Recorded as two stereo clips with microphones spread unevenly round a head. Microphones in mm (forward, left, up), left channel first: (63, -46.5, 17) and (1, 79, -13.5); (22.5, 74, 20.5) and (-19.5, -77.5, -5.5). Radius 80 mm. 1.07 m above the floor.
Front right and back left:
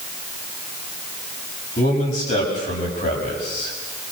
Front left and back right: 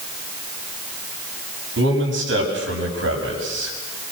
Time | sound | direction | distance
1.8 | a man speaking | 110° right | 6.5 m